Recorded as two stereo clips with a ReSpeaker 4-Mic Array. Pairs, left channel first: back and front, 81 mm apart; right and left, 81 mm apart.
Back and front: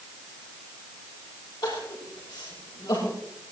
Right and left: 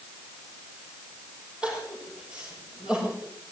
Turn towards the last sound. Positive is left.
turn(degrees=165)